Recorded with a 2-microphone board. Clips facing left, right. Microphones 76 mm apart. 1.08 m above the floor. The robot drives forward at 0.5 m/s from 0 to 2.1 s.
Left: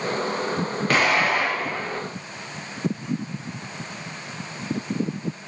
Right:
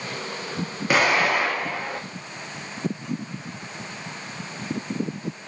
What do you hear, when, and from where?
0.9 s an explosion: 10° right (ahead or behind), 0.9 m; by 2.0 s 5° right (ahead or behind), 1.4 m